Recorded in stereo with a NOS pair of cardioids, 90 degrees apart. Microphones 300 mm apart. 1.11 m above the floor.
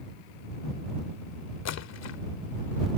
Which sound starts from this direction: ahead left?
A splash, at 1.6 s.